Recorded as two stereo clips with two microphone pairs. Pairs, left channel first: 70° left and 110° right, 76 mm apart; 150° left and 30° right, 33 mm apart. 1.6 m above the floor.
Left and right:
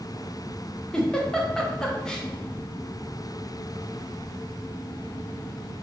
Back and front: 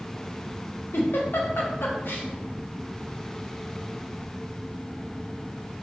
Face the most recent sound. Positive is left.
turn(degrees=150)